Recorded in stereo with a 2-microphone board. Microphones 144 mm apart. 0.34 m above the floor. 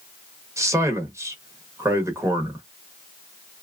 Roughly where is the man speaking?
Centre.